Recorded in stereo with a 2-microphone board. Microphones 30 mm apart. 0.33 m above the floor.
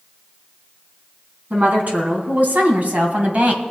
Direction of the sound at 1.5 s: 70° right (ahead or behind).